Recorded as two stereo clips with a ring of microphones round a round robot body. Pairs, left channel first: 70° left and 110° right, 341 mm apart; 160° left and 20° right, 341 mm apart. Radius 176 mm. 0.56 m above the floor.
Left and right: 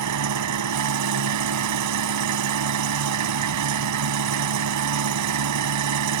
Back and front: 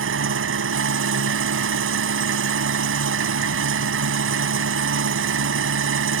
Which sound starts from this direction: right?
An engine running, at 0.0 s.